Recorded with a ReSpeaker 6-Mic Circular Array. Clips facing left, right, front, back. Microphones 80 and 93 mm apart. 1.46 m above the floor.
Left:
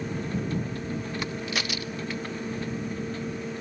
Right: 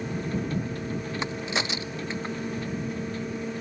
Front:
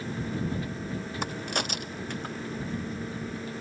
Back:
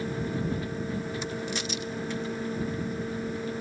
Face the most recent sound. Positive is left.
turn(degrees=-25)